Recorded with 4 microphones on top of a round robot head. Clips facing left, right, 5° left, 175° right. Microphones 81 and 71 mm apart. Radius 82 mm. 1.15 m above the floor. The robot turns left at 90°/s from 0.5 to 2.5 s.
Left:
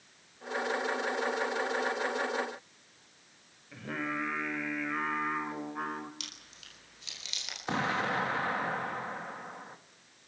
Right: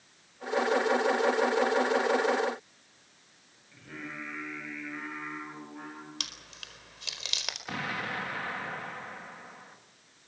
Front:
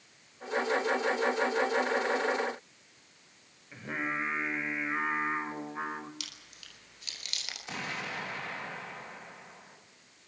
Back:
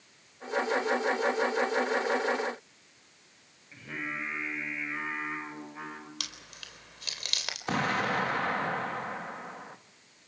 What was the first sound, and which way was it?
Singing, 55° left.